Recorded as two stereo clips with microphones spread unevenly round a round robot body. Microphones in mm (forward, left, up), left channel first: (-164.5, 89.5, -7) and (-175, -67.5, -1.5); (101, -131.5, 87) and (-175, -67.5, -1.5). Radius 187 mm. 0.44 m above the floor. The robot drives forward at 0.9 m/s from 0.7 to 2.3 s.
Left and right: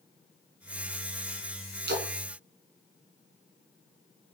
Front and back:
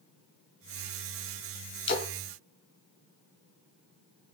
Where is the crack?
I don't hear a crack.